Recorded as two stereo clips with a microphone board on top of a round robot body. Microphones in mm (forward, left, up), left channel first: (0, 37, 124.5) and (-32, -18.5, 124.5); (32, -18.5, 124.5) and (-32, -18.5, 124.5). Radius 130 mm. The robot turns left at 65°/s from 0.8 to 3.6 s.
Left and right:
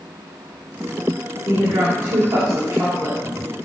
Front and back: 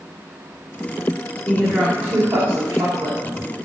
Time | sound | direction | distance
1.4 | a woman speaking | 65° right | 2.5 m